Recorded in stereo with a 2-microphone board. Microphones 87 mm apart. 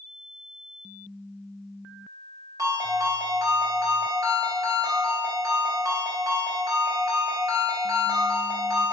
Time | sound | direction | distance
2.6 | a ringtone | 40° right (ahead or behind) | 1.3 m